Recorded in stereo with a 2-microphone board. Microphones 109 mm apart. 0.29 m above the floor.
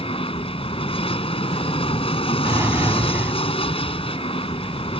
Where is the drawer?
25° right (ahead or behind).